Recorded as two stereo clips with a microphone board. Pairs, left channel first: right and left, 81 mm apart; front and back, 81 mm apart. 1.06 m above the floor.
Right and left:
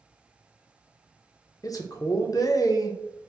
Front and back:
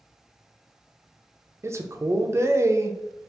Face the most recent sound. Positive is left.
turn(degrees=-125)